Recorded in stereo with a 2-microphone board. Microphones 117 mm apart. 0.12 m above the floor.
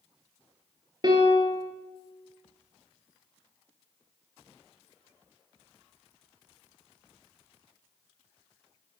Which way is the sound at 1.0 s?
40° right (ahead or behind).